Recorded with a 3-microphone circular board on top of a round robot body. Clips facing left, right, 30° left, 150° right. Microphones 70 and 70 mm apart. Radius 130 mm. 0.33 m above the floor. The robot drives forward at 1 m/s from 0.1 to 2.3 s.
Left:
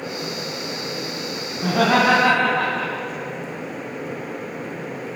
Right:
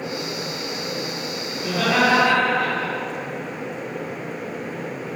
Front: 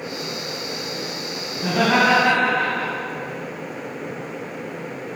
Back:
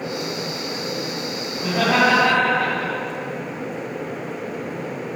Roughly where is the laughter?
Behind left.